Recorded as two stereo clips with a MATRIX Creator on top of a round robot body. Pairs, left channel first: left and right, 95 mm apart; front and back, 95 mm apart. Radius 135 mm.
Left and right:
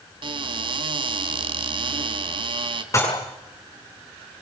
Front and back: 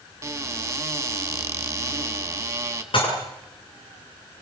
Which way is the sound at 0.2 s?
120° right.